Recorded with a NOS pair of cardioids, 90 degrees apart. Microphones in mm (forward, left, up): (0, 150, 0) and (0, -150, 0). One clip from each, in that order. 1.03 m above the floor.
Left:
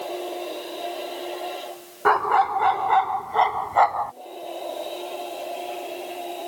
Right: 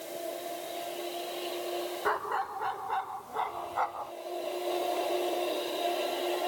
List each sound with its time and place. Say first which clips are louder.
2.0 s a dog barking: left 14 dB; 65° left; by 4.1 s 80° left